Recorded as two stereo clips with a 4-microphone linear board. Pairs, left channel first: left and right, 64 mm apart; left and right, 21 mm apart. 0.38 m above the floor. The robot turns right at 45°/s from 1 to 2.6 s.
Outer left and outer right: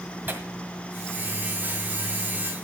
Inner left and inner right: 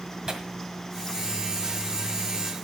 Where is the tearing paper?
35° right (ahead or behind), 1.6 m.